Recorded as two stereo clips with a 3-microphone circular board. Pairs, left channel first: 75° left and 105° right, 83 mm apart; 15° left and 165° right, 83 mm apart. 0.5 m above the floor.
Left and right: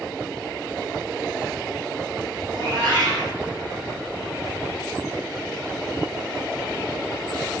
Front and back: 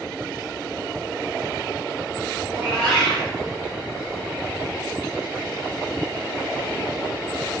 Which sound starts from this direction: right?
A cat meowing, at 2.5 s.